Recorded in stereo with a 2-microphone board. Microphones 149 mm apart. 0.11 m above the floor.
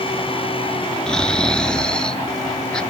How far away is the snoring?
About 0.7 m.